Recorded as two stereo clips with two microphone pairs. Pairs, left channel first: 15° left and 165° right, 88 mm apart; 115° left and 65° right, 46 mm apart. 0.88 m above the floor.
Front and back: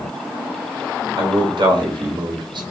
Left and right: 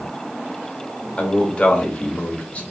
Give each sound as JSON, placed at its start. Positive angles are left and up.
{"t": 1.2, "sound": "a man speaking", "azimuth_deg": 175, "distance_m": 1.1}